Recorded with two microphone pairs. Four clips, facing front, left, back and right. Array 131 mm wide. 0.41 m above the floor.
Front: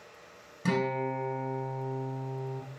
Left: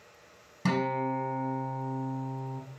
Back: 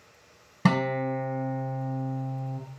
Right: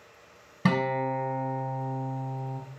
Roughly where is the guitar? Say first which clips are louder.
Right 2 dB, back 4 dB; behind.